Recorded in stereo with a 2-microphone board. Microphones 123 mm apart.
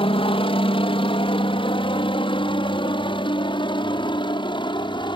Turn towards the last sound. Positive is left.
turn(degrees=45)  # may be behind; listen again after turning